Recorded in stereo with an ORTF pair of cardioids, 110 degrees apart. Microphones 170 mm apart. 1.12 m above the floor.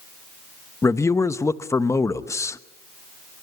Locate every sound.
0.8 s a man speaking: 15° left, 1.0 m